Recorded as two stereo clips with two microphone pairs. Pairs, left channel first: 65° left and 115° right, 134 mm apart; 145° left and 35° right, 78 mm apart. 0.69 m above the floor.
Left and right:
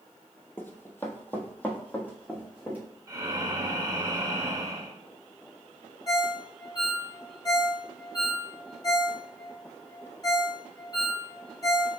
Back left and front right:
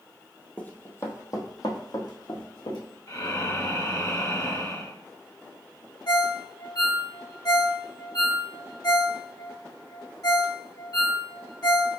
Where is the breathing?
175° right, 0.6 m.